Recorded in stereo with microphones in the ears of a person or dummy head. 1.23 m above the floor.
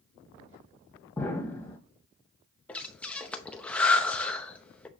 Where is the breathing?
5° left (ahead or behind), 0.7 m.